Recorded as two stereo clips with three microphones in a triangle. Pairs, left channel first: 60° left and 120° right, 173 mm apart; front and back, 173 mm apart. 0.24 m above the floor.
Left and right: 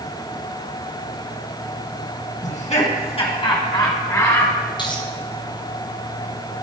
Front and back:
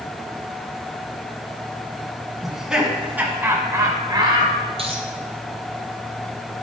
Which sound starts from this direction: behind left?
A dropped coin, at 4.8 s.